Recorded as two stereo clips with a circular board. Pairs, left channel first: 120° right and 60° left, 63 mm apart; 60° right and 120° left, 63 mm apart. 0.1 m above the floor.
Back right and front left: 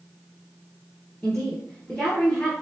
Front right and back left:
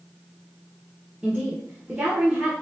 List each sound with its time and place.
1.2 s a woman speaking: 170° left, 1.6 m